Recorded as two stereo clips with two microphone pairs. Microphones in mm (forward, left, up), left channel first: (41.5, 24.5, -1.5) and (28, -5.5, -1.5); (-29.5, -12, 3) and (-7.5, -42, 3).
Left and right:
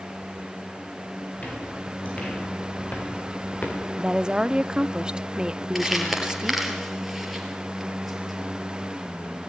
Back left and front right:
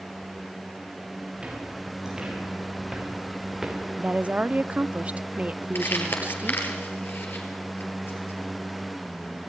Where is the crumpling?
155° left, 5 m.